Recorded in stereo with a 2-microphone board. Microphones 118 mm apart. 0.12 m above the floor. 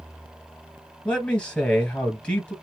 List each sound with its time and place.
1.1 s a man speaking: 10° left (ahead or behind), 2 m